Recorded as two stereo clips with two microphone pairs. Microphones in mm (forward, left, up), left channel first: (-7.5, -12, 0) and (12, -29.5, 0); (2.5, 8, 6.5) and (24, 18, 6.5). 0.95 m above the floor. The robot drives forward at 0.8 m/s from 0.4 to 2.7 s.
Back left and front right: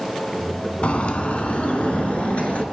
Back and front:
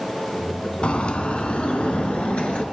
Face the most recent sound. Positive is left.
turn(degrees=175)